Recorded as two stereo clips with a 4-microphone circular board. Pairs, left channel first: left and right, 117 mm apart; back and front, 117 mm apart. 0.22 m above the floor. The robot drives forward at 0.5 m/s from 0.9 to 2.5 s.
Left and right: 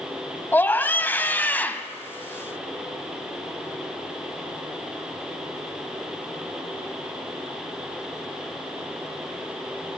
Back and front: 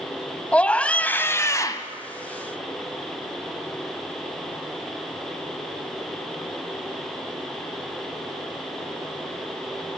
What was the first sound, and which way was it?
A scream, 125° left.